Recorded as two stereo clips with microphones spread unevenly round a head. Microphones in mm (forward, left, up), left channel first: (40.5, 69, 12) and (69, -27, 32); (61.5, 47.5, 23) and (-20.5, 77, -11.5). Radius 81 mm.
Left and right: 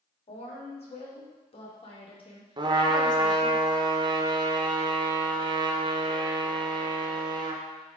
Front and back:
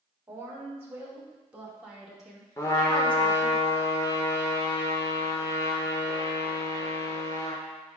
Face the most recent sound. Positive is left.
turn(degrees=-100)